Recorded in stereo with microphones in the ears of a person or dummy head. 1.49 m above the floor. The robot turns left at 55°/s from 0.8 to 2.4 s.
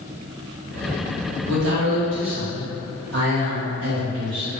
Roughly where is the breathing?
I don't hear breathing.